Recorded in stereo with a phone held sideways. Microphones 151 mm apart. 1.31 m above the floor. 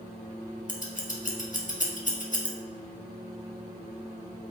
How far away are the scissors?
About 1.6 m.